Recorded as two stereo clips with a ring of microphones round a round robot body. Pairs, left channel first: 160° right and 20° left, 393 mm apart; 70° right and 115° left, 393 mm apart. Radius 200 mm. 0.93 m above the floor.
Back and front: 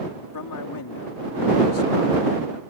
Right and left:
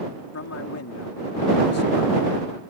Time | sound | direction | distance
0.3 | a man speaking | 120° right | ?